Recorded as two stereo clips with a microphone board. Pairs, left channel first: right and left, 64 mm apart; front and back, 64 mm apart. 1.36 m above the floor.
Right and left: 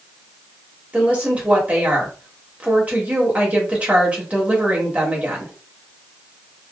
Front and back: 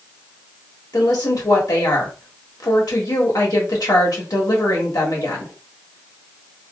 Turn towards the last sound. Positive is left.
turn(degrees=20)